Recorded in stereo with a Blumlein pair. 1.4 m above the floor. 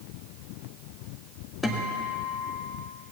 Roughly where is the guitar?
Ahead.